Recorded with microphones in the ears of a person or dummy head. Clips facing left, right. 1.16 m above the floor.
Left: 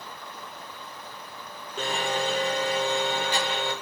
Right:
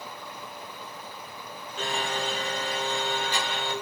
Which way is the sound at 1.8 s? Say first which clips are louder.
Left 3 dB; 55° left (ahead or behind).